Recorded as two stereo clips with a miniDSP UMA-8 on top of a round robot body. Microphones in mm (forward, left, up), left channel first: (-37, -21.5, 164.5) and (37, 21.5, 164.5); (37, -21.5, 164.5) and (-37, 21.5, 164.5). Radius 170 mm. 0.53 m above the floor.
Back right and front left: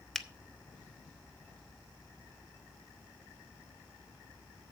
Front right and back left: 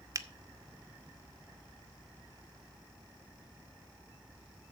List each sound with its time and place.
0.1 s a finger snap: 125° left, 1.2 m